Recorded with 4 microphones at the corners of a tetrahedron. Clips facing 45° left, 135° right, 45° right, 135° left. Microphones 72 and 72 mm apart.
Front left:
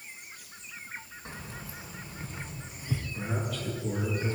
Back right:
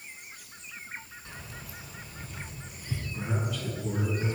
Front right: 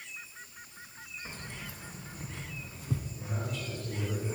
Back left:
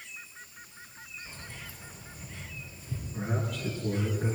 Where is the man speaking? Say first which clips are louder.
Back right 3 dB, back left 4 dB; 155° left, 4.5 m.